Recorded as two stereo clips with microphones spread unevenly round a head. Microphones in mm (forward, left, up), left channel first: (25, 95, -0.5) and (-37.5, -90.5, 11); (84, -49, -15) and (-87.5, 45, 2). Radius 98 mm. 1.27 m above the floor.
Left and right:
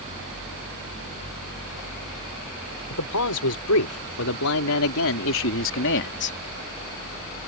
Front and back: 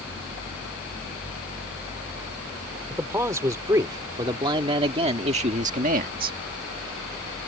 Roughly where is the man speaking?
Left.